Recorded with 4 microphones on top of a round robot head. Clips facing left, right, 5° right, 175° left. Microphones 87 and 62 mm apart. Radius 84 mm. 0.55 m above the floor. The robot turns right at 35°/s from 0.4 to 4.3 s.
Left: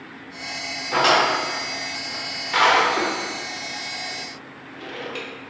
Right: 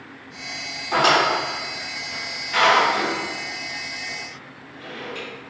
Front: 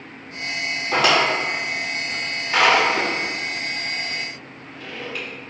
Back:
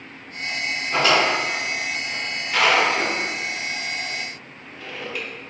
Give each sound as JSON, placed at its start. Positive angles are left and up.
{"t": 0.9, "sound": "a drawer", "azimuth_deg": -25, "distance_m": 1.1}